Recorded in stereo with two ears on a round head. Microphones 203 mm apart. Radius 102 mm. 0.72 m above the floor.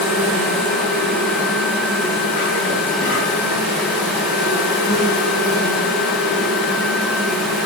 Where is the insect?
55° left (ahead or behind), 3 m.